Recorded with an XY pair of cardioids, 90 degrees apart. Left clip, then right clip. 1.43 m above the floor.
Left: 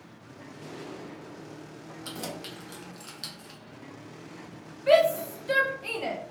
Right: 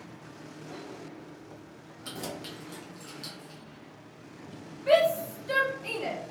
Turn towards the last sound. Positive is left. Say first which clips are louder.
# left 2 dB
turn(degrees=25)